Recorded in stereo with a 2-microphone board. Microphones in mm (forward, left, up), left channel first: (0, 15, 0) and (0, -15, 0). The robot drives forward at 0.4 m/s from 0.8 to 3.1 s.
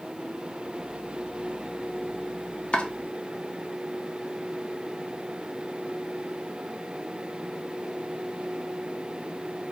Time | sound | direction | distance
2.7 | chopping | 40° left (ahead or behind) | 0.5 m